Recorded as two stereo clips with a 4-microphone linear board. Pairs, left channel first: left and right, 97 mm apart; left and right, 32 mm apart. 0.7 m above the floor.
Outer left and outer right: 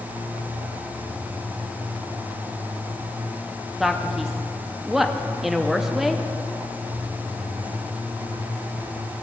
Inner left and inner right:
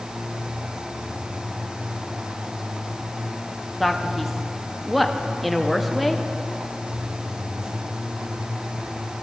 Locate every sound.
3.8 s a man speaking: 5° right (ahead or behind), 0.5 m